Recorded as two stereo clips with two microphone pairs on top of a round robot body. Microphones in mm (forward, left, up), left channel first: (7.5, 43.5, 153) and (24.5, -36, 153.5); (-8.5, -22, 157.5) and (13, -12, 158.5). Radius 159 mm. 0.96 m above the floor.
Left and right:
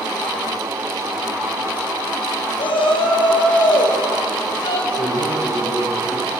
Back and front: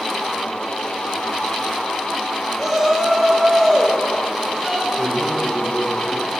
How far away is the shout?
About 4.5 m.